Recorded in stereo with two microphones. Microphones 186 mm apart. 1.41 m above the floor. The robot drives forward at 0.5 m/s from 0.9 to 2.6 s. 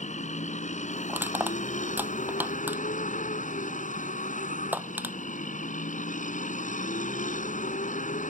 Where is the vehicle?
40° left (ahead or behind).